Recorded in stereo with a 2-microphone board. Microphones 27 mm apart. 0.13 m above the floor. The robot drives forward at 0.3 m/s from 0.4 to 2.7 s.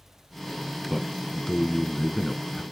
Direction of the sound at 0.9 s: 10° left (ahead or behind).